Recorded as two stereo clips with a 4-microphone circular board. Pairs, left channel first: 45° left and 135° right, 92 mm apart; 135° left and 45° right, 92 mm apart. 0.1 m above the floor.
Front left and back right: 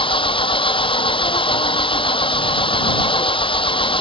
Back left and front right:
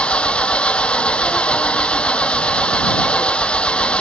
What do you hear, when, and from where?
0.0 s an engine running: 55° left